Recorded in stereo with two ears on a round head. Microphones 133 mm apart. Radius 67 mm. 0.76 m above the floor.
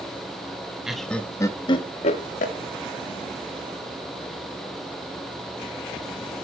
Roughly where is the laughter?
Centre.